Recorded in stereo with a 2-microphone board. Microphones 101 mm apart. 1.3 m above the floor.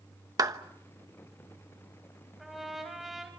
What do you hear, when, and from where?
0.4 s a clap: 35° right (ahead or behind), 1.0 m
2.4 s a trumpet: centre (ahead or behind), 4.5 m